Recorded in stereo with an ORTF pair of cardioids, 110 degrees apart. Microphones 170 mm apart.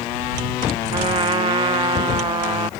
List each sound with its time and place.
0.9 s a trumpet: 30° right